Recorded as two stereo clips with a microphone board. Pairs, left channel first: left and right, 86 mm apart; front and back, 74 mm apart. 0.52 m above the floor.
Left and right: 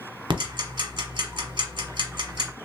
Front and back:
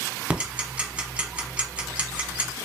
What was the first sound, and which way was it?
Ticking, 105° right.